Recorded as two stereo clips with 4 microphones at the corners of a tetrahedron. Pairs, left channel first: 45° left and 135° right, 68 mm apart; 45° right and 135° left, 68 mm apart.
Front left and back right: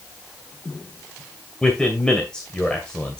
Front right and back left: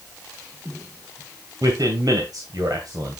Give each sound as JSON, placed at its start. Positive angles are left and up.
{"t": 1.6, "sound": "a man speaking", "azimuth_deg": 120, "distance_m": 2.0}